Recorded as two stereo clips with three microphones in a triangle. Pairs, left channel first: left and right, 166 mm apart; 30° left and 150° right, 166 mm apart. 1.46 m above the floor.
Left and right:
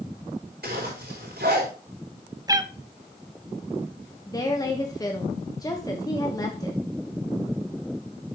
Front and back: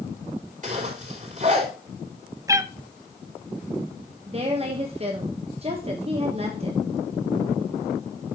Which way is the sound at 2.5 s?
110° right.